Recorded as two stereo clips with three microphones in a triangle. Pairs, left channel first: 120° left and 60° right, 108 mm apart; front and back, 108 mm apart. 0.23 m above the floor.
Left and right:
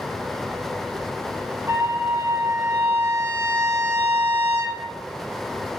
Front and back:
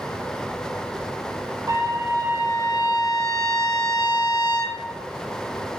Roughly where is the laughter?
No laughter in this recording.